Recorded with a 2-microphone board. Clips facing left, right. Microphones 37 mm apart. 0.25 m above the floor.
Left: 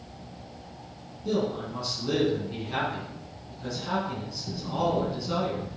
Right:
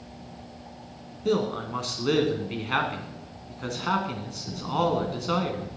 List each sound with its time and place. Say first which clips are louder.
1.2 s a man speaking: right 2 dB; 60° right (ahead or behind), 2.5 m